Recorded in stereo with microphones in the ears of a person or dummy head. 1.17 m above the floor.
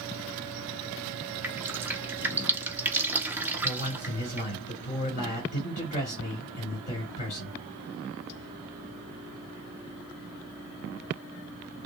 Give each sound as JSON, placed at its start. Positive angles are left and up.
{"t": 1.4, "sound": "dripping", "side_deg": -10, "distance_m": 1.0}
{"t": 3.6, "sound": "a man speaking", "side_deg": 40, "distance_m": 3.0}